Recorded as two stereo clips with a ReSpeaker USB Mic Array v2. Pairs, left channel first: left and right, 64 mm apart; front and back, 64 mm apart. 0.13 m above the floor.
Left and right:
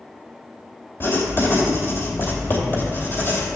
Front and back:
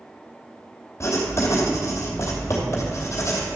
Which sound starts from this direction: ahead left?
Writing, at 1.0 s.